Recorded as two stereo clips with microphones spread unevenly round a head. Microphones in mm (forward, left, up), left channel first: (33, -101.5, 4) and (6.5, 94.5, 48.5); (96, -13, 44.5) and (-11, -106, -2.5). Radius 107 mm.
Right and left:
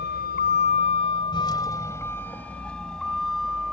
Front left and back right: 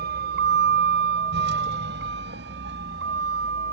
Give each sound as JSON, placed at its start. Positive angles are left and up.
{"t": 0.0, "sound": "a vehicle", "azimuth_deg": -130}